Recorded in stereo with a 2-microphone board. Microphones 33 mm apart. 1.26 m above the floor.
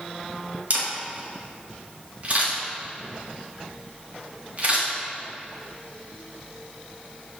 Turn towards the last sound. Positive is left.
turn(degrees=-40)  # may be behind; listen again after turning